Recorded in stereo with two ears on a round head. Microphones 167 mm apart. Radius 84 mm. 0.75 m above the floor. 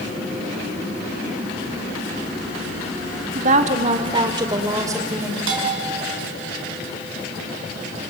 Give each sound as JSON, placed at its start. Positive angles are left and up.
{"t": 3.4, "sound": "a woman speaking", "side_deg": -45, "distance_m": 1.5}
{"t": 5.5, "sound": "a bell", "side_deg": -85, "distance_m": 6.0}